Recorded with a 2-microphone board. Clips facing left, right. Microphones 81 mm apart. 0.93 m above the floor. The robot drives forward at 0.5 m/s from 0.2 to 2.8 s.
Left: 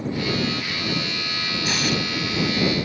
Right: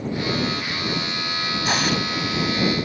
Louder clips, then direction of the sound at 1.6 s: Right 2 dB; 55° right (ahead or behind).